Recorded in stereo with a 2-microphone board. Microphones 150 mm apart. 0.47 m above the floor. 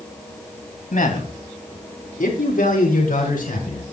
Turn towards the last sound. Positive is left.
turn(degrees=70)  # may be behind; listen again after turning